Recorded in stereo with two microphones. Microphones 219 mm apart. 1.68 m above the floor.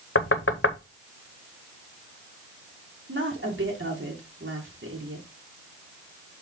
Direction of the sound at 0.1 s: 70° left (ahead or behind).